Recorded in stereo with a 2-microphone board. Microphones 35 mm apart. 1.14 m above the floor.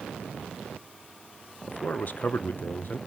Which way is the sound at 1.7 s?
50° left (ahead or behind).